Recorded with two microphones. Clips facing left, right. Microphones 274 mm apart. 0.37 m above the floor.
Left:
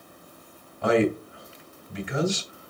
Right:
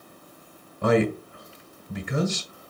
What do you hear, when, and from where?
0.8 s a man speaking: 45° right (ahead or behind), 1.9 m